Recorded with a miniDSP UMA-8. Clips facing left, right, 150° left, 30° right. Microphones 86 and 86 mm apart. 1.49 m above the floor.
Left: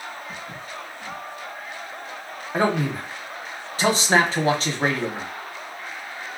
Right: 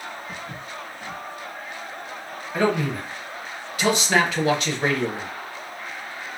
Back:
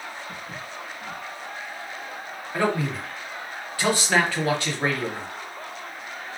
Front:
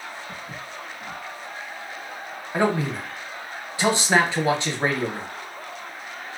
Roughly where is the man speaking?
Ahead left.